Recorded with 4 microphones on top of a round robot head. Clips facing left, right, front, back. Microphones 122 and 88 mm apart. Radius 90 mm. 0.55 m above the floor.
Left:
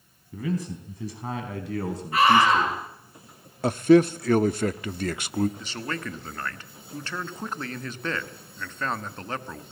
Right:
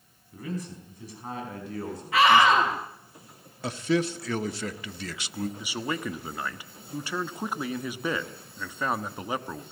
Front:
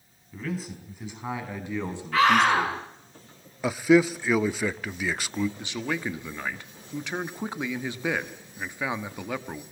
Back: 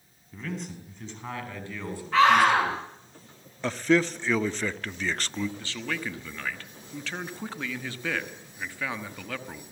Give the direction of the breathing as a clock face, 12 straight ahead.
I don't hear breathing.